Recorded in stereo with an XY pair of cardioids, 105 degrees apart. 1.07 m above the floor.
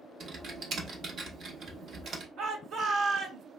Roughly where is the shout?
Ahead right.